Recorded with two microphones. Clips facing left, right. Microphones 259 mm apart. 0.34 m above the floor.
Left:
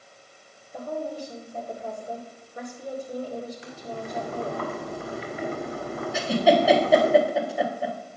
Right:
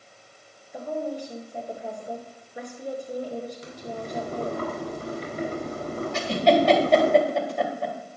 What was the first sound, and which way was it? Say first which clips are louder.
A woman speaking: right 2 dB; 15° right (ahead or behind).